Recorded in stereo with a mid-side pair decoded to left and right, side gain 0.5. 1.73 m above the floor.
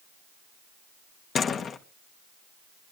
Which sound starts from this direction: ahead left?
A door slam, at 1.4 s.